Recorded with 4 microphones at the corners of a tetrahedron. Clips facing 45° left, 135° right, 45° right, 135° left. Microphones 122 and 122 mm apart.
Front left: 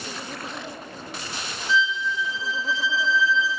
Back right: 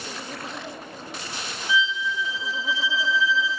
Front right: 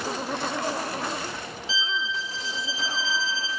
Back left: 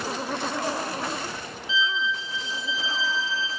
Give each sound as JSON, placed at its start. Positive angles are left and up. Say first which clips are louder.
{"t": 1.7, "sound": "a violin", "louder": "front left 1 dB, back left 4 dB", "azimuth_deg": -55, "distance_m": 0.8}